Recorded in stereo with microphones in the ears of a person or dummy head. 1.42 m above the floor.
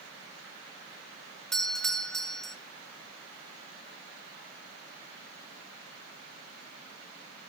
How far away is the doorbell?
About 0.7 m.